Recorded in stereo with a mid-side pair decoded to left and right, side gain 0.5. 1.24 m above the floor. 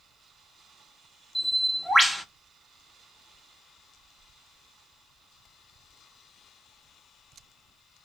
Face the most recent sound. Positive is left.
turn(degrees=0)